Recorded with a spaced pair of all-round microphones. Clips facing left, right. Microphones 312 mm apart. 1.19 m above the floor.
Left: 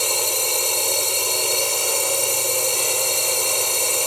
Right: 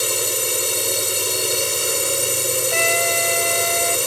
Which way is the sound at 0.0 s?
20° right (ahead or behind).